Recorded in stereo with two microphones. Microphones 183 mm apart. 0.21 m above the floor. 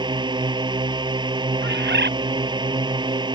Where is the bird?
70° right (ahead or behind).